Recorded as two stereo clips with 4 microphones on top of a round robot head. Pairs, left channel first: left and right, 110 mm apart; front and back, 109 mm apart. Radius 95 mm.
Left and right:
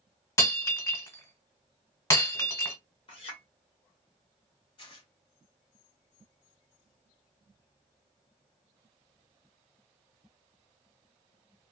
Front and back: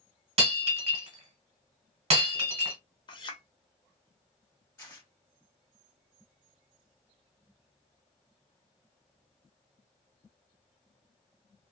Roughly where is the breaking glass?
Behind left.